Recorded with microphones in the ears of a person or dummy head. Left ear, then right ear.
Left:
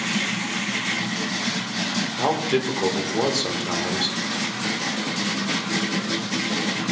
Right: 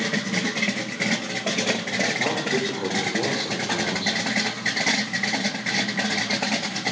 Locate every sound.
2.2 s a man speaking: 45° left (ahead or behind), 1.5 m